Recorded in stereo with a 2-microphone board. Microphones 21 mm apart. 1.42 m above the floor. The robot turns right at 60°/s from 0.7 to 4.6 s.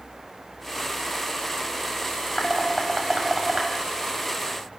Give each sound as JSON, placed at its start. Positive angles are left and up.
{"t": 2.4, "sound": "dishes clattering", "side_deg": 30, "distance_m": 5.5}